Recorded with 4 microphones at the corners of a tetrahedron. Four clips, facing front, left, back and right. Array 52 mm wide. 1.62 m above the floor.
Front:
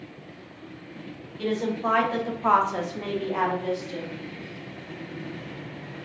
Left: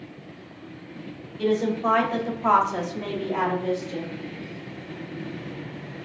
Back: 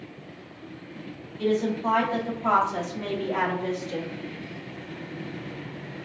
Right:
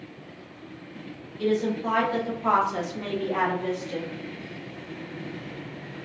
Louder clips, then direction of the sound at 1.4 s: Left 2 dB, back 2 dB; 40° left.